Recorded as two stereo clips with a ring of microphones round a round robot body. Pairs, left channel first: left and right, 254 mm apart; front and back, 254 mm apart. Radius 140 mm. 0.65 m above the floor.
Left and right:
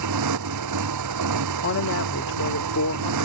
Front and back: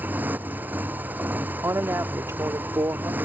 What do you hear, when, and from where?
0.0 s a motorcycle: 95° right
1.6 s a woman speaking: 100° left